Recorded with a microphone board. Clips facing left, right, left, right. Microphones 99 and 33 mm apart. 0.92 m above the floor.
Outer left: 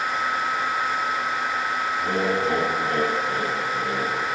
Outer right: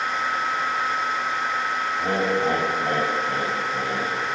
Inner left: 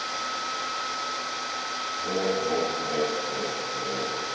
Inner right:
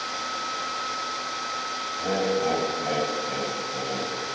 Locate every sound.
2.0 s laughter: 60° right (ahead or behind), 5 m